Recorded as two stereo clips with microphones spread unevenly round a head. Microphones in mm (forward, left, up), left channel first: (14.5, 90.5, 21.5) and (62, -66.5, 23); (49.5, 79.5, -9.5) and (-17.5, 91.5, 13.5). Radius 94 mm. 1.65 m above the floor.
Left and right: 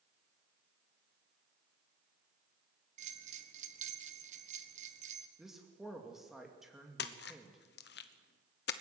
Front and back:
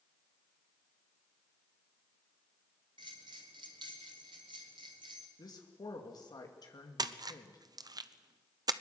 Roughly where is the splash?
Behind left.